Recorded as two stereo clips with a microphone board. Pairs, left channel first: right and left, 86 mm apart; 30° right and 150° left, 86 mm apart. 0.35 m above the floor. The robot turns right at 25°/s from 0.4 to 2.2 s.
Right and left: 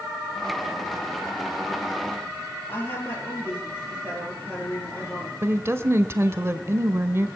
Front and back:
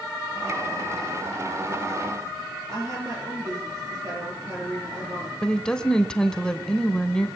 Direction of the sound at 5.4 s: 45° left.